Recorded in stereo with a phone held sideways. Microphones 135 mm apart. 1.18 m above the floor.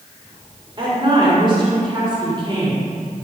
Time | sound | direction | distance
0.8 | a woman speaking | 35° right (ahead or behind) | 4.5 m